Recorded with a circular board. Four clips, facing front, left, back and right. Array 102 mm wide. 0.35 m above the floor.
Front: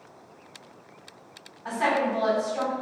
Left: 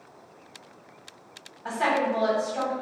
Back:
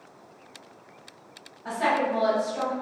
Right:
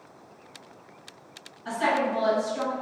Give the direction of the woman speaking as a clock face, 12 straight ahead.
9 o'clock.